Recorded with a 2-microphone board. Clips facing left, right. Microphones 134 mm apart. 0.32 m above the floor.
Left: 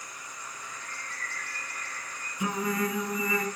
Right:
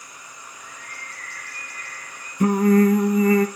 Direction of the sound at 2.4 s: 55° right (ahead or behind).